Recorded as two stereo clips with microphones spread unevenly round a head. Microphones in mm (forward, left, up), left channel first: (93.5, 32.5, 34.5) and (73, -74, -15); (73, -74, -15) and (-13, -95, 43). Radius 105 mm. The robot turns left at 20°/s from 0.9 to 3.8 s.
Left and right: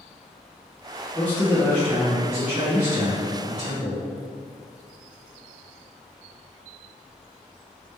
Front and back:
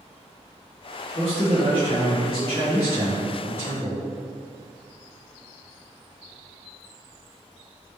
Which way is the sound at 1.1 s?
5° right.